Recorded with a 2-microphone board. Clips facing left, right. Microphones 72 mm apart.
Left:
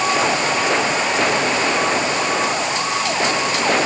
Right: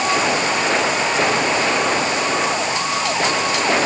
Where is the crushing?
No crushing in this recording.